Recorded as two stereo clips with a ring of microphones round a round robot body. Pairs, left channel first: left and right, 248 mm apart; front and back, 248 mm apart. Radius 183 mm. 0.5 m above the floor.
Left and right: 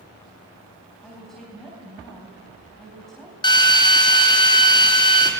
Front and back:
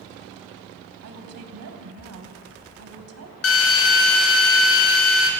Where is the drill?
20° left, 3.5 m.